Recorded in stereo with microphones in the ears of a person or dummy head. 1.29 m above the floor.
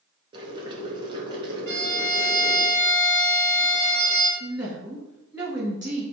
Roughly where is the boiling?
Right.